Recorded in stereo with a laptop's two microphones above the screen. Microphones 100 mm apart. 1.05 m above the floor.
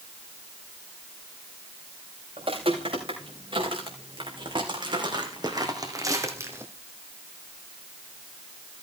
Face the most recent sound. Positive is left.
turn(degrees=-20)  # may be behind; listen again after turning